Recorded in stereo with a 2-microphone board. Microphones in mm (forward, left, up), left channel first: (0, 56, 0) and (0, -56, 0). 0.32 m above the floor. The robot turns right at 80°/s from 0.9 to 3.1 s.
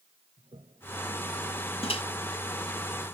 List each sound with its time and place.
0.4 s a toilet flushing: 55° right (ahead or behind); by 2.7 s 20° left (ahead or behind)
1.8 s a microwave: 65° left (ahead or behind)